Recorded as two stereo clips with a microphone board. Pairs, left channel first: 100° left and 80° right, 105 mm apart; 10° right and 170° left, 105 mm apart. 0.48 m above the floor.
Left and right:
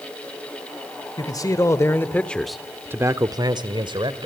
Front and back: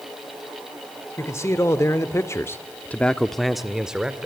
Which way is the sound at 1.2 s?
50° left.